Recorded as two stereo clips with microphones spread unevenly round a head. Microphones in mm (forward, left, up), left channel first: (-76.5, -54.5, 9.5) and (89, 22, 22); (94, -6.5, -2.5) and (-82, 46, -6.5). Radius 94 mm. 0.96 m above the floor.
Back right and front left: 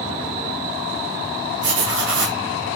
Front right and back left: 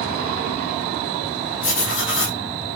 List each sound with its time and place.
1.6 s writing: straight ahead, 2 m